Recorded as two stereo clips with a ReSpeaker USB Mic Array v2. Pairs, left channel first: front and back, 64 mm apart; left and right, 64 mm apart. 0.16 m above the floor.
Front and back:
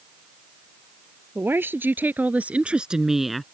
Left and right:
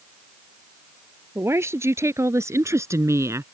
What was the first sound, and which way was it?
A woman speaking, 130° right.